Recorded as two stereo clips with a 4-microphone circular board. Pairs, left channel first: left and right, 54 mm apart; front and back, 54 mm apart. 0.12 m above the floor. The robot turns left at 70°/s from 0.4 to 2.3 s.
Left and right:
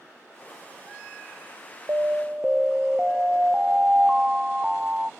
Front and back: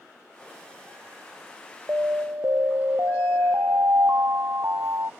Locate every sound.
1.9 s an alarm: 130° right; by 5.1 s 160° right